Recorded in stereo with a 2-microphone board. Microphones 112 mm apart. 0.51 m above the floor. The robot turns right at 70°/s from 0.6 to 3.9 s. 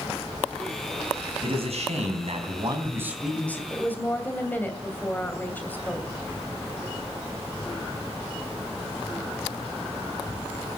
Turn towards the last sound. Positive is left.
turn(degrees=15)  # may be behind; listen again after turning